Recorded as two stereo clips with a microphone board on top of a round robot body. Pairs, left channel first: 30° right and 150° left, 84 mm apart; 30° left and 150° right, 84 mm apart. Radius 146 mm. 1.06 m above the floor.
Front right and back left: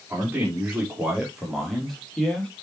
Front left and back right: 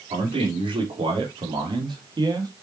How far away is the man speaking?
About 4.5 m.